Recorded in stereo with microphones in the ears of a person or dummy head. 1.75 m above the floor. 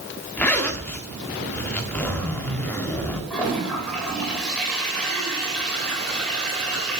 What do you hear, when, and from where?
0.4 s a zipper: 5° left (ahead or behind), 1.4 m
3.3 s a toilet flushing: 5° left (ahead or behind), 3.5 m